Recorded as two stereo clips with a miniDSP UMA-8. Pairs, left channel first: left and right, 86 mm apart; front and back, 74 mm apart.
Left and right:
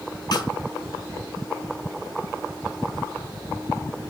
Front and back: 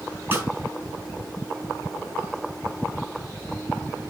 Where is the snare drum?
120° left, 4 m.